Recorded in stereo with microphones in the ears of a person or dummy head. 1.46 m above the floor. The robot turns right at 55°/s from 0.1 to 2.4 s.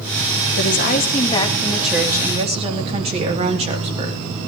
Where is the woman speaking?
110° left, 3.5 m; by 4.2 s 145° right, 3.5 m.